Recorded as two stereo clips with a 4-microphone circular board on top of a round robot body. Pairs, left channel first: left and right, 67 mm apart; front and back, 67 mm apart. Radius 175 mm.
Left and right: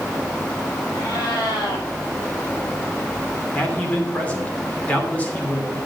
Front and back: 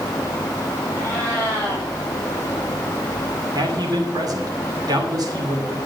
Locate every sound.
0.9 s a cat meowing: 70° left, 4.5 m
3.5 s a man speaking: 160° left, 2.5 m